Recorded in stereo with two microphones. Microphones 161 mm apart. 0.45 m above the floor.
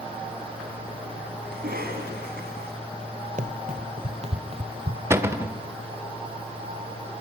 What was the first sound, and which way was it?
A cough, 75° right (ahead or behind).